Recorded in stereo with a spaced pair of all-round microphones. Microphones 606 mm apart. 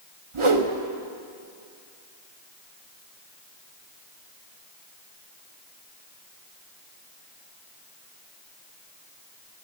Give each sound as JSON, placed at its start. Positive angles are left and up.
{"t": 0.3, "sound": "a whoosh", "side_deg": -55, "distance_m": 0.9}